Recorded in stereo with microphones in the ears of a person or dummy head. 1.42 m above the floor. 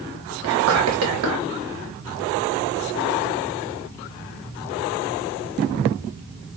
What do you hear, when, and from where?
0.4 s whispering: 70° right (ahead or behind), 3 m